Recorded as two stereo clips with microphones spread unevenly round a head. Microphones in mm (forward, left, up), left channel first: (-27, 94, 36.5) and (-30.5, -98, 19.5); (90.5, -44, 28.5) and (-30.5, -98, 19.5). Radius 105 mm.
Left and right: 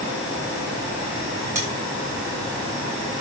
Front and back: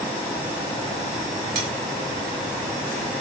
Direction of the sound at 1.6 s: 170° right.